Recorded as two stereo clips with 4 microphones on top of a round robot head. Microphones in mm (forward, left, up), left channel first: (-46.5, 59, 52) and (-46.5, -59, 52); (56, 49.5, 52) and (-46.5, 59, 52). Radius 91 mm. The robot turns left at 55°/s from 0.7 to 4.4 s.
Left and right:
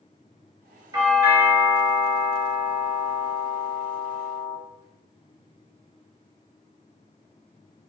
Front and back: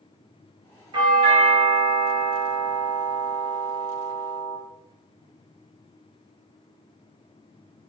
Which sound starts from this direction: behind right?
A doorbell, at 0.9 s.